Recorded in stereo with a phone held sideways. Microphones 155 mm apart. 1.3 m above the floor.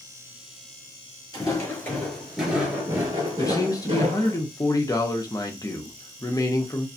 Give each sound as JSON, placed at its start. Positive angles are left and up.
{"t": 1.3, "sound": "footsteps", "side_deg": 25, "distance_m": 1.4}
{"t": 3.4, "sound": "a man speaking", "side_deg": 25, "distance_m": 0.7}